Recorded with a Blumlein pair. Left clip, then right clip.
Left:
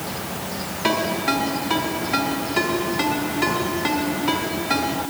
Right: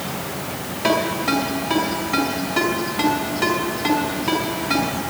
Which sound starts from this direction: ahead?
A ringtone, at 0.8 s.